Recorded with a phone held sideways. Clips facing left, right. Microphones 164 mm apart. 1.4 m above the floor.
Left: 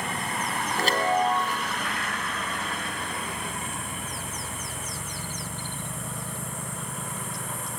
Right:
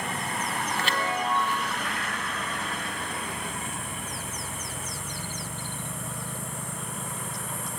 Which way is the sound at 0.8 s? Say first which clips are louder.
Left 8 dB; 40° left (ahead or behind).